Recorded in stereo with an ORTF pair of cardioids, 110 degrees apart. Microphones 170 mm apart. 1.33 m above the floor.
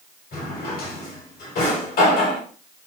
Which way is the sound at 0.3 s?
65° left.